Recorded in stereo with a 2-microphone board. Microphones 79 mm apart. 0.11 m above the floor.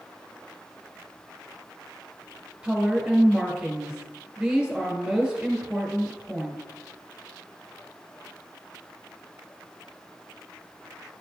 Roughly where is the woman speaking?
Centre.